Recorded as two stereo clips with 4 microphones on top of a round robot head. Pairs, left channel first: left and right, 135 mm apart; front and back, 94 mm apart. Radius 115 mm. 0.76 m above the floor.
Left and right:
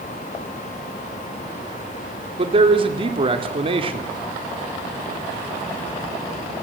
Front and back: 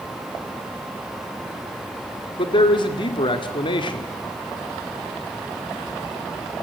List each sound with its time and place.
2.4 s a man speaking: 40° right, 2 m